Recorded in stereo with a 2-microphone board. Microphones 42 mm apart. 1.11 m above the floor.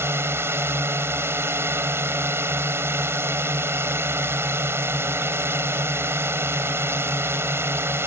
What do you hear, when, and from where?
0.0 s a drone: 75° right (ahead or behind)